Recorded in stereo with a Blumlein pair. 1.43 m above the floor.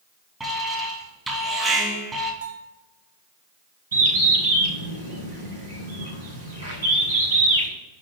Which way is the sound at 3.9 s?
70° right.